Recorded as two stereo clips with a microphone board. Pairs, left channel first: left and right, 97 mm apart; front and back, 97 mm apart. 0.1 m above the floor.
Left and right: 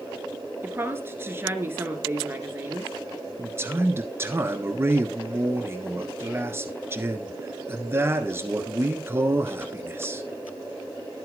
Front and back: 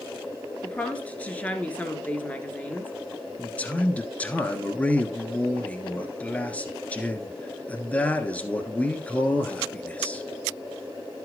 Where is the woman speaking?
60° right, 1.4 m.